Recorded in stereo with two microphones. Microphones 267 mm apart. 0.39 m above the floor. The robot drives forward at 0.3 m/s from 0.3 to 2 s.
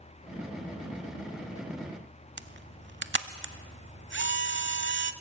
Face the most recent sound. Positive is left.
turn(degrees=-45)  # may be behind; listen again after turning